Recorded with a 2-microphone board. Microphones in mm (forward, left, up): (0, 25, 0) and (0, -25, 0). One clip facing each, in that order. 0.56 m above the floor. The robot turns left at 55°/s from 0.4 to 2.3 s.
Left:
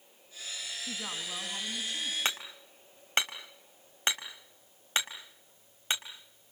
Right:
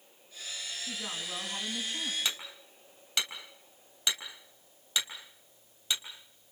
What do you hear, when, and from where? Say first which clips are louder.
0.9 s a woman speaking: even; 25° left, 5 m; by 2.1 s 45° right, 5 m
2.2 s hammering: left 2 dB; 45° left (ahead or behind), 3.5 m